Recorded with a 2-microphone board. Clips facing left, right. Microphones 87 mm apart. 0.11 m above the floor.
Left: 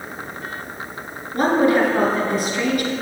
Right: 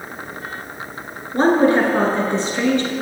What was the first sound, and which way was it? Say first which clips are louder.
A woman speaking: right 2 dB; 30° right (ahead or behind).